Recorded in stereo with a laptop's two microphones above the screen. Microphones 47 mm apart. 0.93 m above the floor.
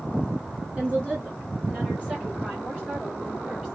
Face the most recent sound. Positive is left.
turn(degrees=-25)  # may be behind; listen again after turning